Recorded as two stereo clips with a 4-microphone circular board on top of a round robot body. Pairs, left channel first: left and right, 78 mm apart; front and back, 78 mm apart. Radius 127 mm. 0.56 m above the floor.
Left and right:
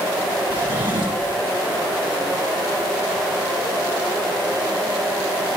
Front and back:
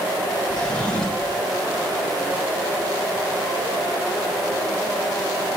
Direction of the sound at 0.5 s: 75° right.